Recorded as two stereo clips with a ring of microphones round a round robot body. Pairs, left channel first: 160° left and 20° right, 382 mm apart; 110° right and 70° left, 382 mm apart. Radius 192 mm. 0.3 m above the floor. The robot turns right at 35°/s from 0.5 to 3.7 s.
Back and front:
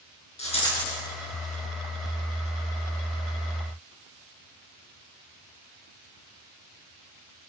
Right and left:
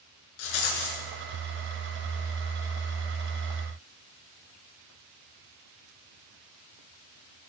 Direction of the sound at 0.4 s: 130° right.